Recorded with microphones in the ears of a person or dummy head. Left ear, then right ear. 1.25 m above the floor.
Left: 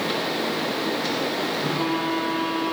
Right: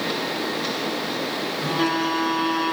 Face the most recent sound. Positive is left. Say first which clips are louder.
# right 2 dB
turn(degrees=-50)  # may be behind; listen again after turning